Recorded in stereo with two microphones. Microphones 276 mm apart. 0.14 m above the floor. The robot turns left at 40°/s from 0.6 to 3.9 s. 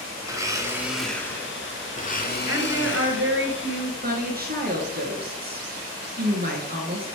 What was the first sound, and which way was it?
A blender, 165° right.